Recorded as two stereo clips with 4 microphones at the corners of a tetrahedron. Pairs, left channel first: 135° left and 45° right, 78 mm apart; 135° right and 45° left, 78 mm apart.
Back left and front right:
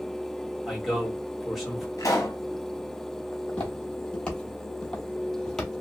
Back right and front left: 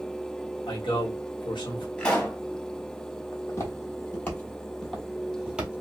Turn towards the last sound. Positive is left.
turn(degrees=70)